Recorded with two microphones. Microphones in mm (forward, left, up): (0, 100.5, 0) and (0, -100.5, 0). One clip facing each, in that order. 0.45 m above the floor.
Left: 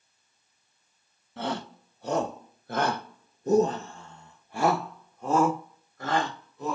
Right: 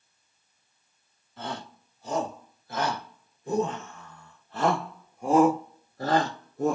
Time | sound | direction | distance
1.4 | a shout | 65° left (ahead or behind) | 2 m